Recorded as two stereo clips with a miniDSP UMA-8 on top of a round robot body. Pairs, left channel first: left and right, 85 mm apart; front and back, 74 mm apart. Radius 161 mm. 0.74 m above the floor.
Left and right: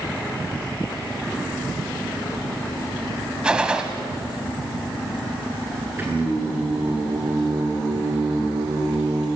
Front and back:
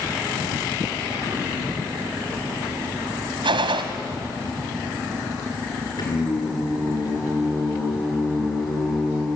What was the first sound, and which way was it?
A gunshot, 170° right.